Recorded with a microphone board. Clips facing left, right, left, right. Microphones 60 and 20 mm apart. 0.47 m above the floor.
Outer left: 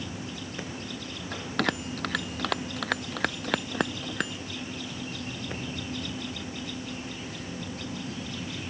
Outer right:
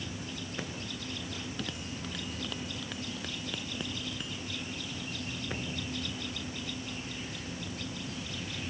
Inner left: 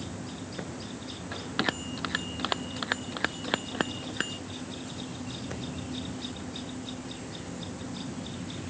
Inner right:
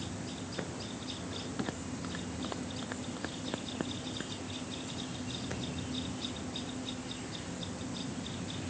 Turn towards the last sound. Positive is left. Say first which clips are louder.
# outer left 10 dB, inner left 11 dB
turn(degrees=65)  # may be behind; listen again after turning